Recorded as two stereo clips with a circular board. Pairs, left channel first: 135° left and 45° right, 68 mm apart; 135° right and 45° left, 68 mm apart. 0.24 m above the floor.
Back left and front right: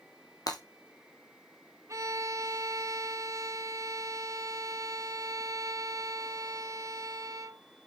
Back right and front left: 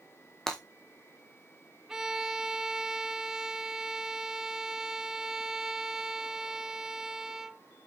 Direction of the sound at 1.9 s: 35° right.